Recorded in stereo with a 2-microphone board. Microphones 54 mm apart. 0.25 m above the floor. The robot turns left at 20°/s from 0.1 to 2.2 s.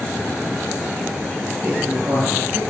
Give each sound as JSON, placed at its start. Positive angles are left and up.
{"t": 1.6, "sound": "a woman speaking", "side_deg": -25, "distance_m": 7.0}